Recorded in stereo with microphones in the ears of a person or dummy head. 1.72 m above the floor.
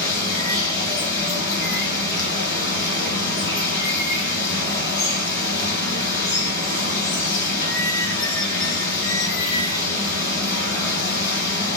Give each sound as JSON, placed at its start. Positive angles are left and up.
{"t": 0.0, "sound": "running water", "side_deg": 55, "distance_m": 2.0}